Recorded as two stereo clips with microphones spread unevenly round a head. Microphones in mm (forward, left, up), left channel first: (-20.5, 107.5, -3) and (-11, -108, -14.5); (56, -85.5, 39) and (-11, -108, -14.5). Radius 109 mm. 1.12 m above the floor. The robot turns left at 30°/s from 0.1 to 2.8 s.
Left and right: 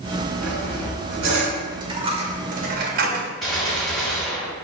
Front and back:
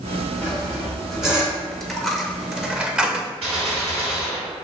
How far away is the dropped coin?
About 0.7 m.